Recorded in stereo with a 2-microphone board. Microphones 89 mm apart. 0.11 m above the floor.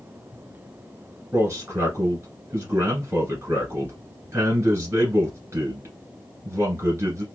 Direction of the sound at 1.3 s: 30° right (ahead or behind).